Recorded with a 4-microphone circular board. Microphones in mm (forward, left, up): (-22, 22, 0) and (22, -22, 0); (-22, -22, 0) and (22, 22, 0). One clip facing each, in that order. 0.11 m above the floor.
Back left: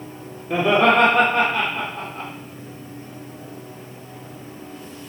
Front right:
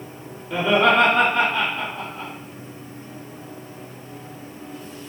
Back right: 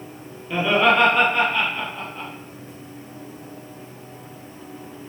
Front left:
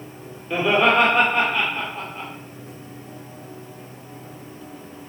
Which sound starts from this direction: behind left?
Laughter, at 0.5 s.